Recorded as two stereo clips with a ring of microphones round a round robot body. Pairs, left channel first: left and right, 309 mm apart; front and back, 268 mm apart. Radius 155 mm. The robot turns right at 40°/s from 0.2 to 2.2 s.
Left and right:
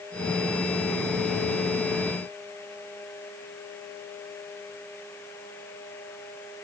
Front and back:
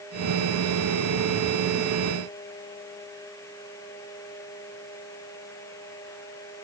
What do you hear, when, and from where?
Only background noise.